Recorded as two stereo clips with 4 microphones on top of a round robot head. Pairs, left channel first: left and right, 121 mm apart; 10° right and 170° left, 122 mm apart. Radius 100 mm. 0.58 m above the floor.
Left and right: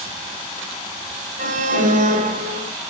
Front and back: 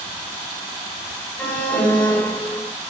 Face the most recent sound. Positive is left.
turn(degrees=-85)